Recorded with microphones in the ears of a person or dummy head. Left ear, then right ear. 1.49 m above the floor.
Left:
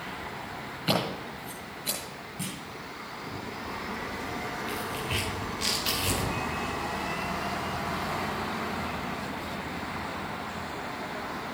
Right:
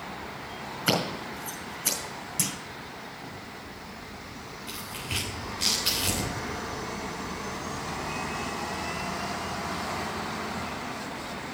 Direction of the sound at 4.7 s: 15° right (ahead or behind).